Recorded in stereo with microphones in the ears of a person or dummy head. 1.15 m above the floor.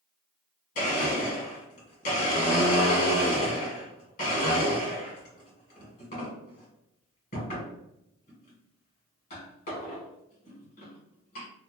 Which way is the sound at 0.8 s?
50° left (ahead or behind).